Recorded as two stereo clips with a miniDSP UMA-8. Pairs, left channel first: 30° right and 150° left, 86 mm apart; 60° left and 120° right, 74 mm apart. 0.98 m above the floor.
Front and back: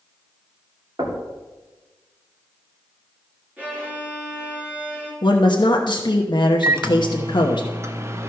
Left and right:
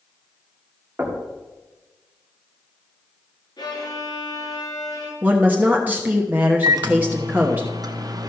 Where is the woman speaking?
55° right, 1.0 m.